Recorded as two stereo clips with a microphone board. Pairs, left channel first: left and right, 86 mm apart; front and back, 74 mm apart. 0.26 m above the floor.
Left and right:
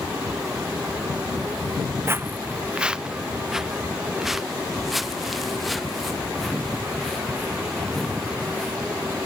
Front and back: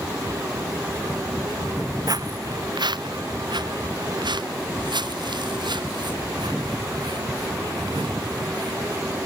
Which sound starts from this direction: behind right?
Footsteps, at 2.1 s.